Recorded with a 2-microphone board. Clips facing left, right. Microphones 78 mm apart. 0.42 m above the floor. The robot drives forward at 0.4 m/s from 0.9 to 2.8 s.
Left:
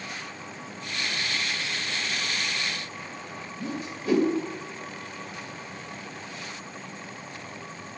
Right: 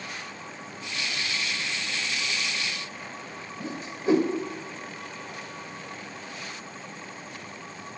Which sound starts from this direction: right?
A whoosh, at 3.6 s.